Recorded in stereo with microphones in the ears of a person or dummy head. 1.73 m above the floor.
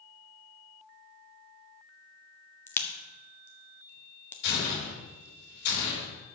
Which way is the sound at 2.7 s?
20° left (ahead or behind).